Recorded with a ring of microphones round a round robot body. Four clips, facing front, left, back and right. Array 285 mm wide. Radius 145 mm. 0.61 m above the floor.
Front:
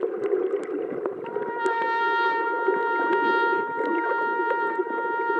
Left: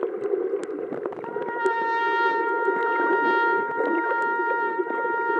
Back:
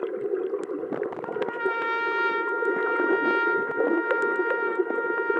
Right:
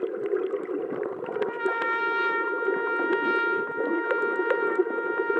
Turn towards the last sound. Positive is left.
turn(degrees=35)